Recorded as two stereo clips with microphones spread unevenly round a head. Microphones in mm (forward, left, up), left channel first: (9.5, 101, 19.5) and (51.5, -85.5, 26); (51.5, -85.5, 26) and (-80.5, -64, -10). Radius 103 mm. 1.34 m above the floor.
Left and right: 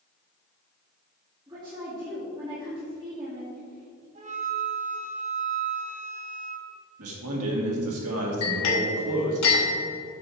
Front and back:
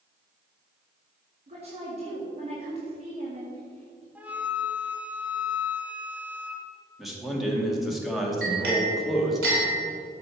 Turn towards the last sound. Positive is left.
turn(degrees=120)